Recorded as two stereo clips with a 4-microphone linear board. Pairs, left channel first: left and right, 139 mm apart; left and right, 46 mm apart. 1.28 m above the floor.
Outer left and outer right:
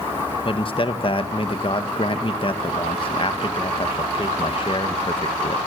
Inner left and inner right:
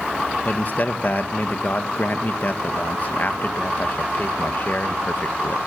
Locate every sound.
0.5 s a man speaking: 40° left (ahead or behind), 1.7 m